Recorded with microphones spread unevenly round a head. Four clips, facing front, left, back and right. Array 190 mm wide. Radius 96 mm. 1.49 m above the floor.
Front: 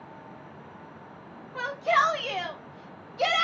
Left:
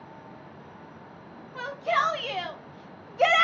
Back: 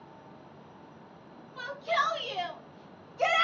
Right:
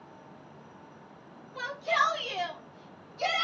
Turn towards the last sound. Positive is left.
turn(degrees=85)